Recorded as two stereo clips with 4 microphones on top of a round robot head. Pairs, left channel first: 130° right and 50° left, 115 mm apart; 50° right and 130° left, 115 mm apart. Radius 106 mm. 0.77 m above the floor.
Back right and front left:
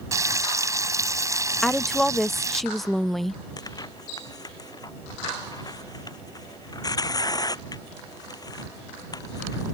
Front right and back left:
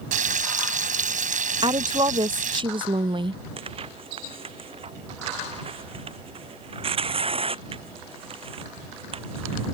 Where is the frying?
115° left.